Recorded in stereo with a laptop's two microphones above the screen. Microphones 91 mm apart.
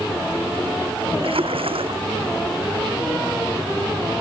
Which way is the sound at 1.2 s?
85° right.